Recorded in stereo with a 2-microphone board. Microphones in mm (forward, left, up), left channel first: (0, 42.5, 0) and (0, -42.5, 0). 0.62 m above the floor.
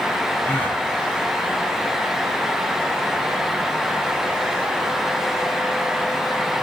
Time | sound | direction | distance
0.4 | a gasp | 20° left (ahead or behind) | 6 m